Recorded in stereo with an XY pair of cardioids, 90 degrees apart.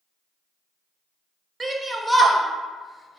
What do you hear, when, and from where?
1.6 s a shout: 25° right, 0.8 m; by 3.2 s 30° left, 1.0 m